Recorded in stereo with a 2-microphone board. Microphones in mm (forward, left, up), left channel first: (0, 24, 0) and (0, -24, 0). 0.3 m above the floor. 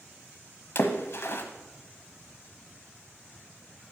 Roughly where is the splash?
Left.